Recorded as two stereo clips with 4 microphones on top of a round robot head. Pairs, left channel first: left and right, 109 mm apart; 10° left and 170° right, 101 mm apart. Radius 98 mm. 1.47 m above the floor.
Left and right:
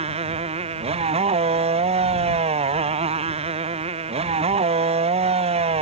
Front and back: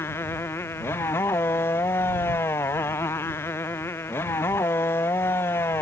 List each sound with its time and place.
0.0 s a motorcycle: 65° right